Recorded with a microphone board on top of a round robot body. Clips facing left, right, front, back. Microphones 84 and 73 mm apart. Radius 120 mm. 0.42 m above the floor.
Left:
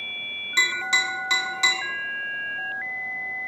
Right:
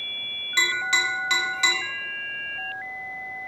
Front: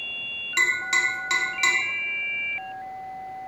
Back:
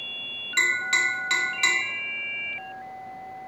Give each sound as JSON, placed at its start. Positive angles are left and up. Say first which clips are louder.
{"t": 0.6, "sound": "tapping", "louder": "even, even", "azimuth_deg": 50, "distance_m": 1.3}